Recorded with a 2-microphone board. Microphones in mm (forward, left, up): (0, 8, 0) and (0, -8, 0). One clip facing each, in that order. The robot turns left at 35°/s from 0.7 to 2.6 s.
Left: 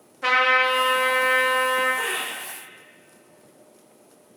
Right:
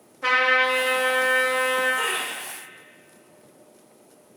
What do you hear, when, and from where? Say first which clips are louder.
0.2 s a trumpet: left 1 dB; 15° left (ahead or behind), 1.0 m; by 1.9 s 25° left (ahead or behind), 1.0 m
2.0 s laughter: right 1 dB; 30° right (ahead or behind), 0.8 m